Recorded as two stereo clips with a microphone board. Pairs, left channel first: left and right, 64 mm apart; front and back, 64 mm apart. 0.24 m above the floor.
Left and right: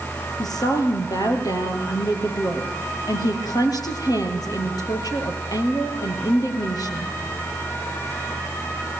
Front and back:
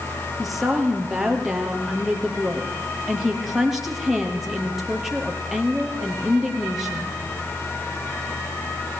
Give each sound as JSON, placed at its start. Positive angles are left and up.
{"t": 0.4, "sound": "a woman speaking", "azimuth_deg": 95, "distance_m": 4.5}